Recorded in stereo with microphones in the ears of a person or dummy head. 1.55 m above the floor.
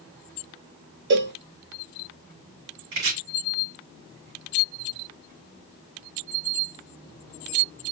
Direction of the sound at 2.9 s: 60° right (ahead or behind).